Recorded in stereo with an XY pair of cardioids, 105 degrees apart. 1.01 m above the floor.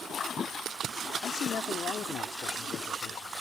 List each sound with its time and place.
1.2 s a man speaking: 60° left; by 3.3 s 70° left